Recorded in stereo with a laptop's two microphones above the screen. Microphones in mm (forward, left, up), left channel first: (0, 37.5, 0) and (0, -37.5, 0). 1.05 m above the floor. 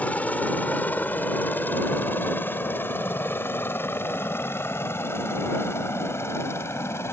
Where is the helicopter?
20° left (ahead or behind); by 7.1 s 35° left (ahead or behind).